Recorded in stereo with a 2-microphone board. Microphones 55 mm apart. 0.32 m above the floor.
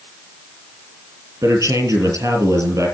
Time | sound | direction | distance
1.4 | a man speaking | 75° right (ahead or behind) | 6.5 m